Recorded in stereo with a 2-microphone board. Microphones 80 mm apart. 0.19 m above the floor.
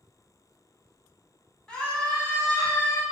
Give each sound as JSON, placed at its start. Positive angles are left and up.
{"t": 1.7, "sound": "a scream", "side_deg": 10, "distance_m": 1.4}